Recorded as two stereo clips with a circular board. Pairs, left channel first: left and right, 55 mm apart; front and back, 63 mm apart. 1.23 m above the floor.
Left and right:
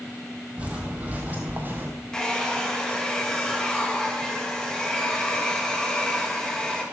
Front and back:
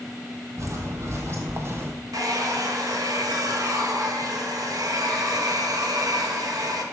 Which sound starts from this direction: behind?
A hair dryer, at 2.1 s.